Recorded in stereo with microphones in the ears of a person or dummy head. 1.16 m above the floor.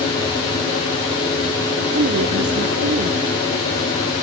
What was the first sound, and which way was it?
A woman speaking, 55° right (ahead or behind).